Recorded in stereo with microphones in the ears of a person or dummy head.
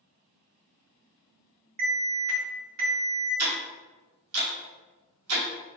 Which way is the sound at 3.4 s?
75° right (ahead or behind).